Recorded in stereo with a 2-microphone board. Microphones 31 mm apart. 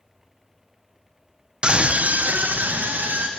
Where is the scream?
25° right (ahead or behind), 0.7 m; by 3.3 s 70° right (ahead or behind), 2.0 m.